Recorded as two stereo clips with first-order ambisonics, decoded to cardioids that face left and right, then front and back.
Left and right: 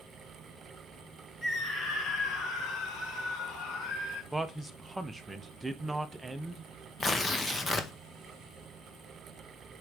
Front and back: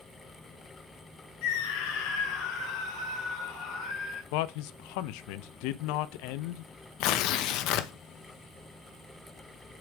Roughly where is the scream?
Ahead.